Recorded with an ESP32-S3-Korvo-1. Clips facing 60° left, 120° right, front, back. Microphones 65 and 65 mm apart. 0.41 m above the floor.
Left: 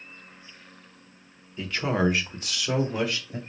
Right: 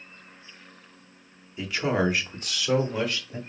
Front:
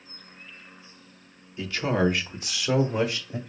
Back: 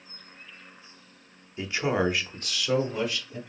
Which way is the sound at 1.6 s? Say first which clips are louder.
Even, front 1 dB; 165° left.